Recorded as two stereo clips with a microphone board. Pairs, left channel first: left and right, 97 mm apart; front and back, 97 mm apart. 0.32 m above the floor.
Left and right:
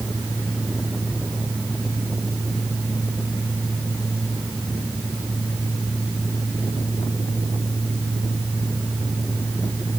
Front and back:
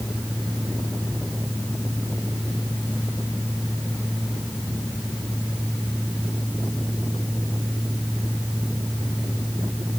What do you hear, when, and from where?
Only background noise.